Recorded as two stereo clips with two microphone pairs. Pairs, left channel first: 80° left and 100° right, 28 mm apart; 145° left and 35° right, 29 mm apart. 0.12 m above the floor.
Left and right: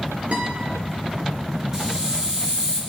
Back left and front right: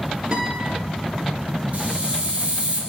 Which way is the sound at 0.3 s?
90° right.